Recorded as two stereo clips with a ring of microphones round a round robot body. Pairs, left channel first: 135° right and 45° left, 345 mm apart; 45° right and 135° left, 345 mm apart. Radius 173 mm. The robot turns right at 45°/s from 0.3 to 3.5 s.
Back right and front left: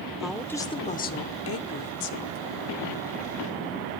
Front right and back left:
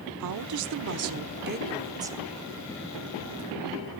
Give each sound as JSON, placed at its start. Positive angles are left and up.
{"t": 0.2, "sound": "a woman speaking", "azimuth_deg": 135, "distance_m": 1.0}